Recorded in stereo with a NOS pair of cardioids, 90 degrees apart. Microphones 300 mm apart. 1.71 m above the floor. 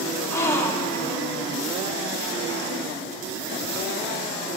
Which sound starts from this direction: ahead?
A gasp, at 0.3 s.